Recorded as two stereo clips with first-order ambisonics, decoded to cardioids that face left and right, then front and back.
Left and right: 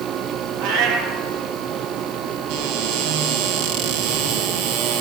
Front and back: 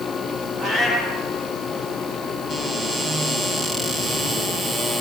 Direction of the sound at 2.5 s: 80° right.